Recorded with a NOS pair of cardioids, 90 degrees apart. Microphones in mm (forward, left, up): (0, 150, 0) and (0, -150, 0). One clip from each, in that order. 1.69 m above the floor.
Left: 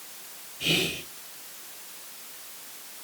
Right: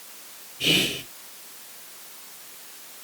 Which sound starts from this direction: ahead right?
Whispering, at 0.6 s.